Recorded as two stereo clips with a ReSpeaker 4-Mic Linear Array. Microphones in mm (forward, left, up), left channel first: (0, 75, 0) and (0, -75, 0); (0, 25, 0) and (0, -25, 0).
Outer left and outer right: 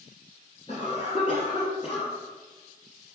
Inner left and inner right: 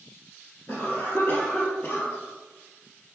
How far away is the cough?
About 2.0 m.